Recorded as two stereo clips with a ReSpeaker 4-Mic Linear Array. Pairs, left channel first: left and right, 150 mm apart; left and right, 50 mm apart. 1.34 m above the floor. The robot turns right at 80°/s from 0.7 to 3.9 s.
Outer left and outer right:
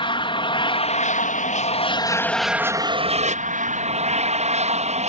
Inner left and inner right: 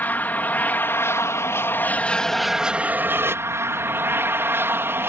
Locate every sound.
0.0 s an aircraft: 40° left; by 5.1 s 65° right